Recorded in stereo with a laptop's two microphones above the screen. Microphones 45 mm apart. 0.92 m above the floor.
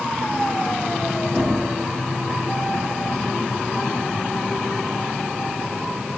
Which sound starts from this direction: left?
Knocking, at 1.3 s.